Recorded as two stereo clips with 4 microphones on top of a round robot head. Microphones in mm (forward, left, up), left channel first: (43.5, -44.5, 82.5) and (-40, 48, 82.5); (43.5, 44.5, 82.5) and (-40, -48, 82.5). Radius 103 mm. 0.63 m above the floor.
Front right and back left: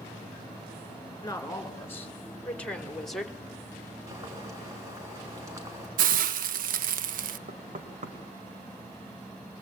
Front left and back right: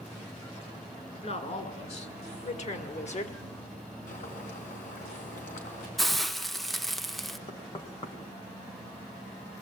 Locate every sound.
1.2 s a woman speaking: 15° left, 3 m; by 3.4 s 45° left, 2.0 m
4.1 s boiling: 65° left, 3.5 m
6.0 s a hiss: 135° left, 0.6 m
7.5 s knocking: 100° left, 2 m